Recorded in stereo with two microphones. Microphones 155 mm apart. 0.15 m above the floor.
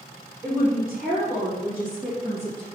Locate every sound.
0.4 s a woman speaking: 15° right (ahead or behind), 3.5 m; by 2.7 s 20° left (ahead or behind), 4 m